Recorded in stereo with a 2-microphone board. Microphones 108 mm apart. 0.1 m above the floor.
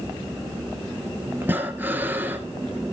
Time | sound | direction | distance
1.4 | breathing | 20° right (ahead or behind) | 1.7 m